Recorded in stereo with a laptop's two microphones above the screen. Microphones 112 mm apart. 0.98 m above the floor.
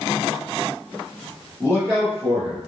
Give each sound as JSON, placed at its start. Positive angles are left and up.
{"t": 1.6, "sound": "a man speaking", "side_deg": -30, "distance_m": 1.2}